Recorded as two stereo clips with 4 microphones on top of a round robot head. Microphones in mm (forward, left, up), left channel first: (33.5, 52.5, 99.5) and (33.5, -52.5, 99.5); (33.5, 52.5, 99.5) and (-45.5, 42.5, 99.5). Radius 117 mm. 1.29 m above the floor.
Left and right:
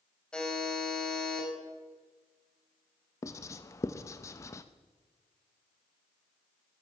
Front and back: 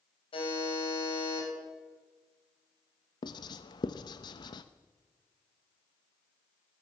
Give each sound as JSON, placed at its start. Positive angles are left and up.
{"t": 0.3, "sound": "a buzzer", "azimuth_deg": 5, "distance_m": 7.0}
{"t": 3.2, "sound": "writing", "azimuth_deg": 30, "distance_m": 0.7}